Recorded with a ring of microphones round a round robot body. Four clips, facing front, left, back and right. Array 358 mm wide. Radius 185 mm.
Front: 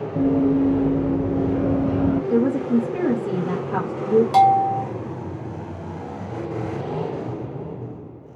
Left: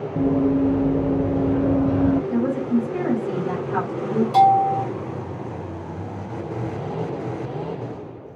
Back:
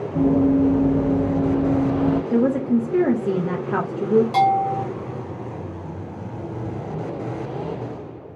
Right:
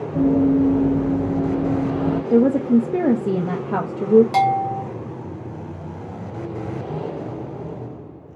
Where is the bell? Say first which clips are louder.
Left 4 dB, front 3 dB; 55° right, 0.6 m.